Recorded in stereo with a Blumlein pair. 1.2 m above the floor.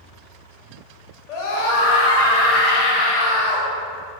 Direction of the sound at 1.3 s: 40° left.